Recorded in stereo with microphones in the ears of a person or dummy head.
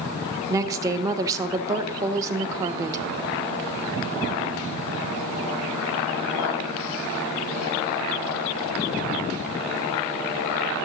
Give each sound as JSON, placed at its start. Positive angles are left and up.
{"t": 0.5, "sound": "a woman speaking", "side_deg": -20, "distance_m": 0.5}